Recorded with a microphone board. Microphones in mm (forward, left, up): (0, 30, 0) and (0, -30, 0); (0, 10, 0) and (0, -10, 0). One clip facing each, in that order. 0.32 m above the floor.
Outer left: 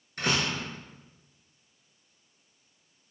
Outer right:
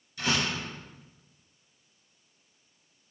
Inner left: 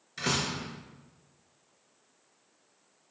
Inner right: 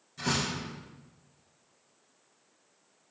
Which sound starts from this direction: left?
A door slam, at 0.2 s.